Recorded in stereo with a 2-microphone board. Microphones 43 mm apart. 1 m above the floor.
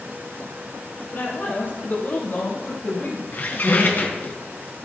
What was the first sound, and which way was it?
A woman speaking, 45° left (ahead or behind).